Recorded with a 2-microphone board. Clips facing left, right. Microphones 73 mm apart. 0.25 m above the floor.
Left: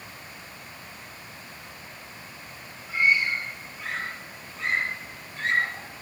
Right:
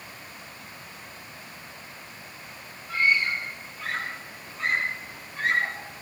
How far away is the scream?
About 5.5 m.